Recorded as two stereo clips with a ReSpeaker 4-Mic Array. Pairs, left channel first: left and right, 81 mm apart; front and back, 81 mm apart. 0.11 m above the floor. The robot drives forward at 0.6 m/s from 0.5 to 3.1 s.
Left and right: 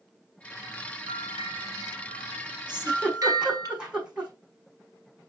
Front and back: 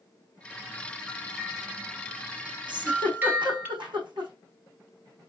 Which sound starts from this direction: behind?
A giggle, at 2.7 s.